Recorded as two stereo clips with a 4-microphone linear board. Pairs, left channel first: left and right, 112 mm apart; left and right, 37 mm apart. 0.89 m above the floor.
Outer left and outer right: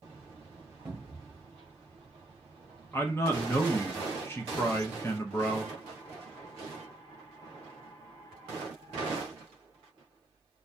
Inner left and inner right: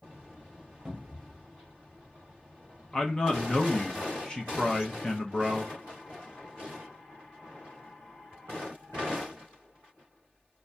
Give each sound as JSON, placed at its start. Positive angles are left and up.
{"t": 0.8, "sound": "a cupboard door", "side_deg": -15, "distance_m": 0.9}
{"t": 2.9, "sound": "a man speaking", "side_deg": 20, "distance_m": 0.6}